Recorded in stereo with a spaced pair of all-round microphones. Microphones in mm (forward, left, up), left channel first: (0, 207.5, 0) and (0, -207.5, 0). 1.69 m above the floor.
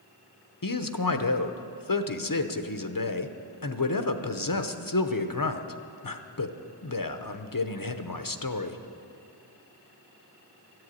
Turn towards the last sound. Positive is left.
turn(degrees=50)  # may be behind; listen again after turning